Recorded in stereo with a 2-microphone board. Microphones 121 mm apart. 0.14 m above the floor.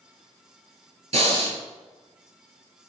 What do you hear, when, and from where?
1.1 s breathing: 60° right (ahead or behind), 0.9 m